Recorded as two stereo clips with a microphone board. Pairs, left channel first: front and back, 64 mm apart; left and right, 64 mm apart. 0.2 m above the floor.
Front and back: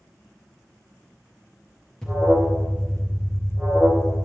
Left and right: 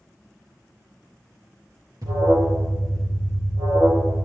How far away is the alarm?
About 4 m.